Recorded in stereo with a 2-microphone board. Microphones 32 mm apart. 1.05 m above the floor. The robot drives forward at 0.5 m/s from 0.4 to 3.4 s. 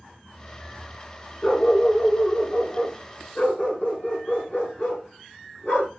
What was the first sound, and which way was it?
A dog barking, 50° left (ahead or behind).